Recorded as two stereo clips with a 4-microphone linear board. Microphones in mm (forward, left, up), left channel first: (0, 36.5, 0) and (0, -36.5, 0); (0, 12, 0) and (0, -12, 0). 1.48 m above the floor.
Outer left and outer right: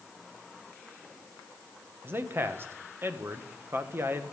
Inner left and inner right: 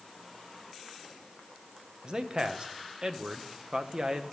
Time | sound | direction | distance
2.0 | a man speaking | 30° right (ahead or behind) | 1.4 m